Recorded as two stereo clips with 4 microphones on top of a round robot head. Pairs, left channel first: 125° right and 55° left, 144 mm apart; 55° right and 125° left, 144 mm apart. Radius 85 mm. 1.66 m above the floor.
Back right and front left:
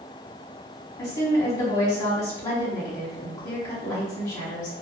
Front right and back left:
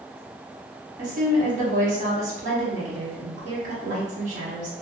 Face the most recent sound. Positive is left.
turn(degrees=165)